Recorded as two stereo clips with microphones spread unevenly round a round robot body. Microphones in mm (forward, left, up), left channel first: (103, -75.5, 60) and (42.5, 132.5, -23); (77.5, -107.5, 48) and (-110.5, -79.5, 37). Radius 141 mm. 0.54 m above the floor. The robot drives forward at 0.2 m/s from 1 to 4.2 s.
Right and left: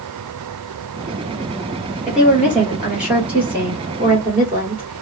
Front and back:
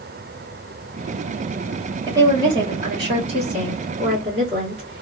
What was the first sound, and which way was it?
A woman speaking, 130° left.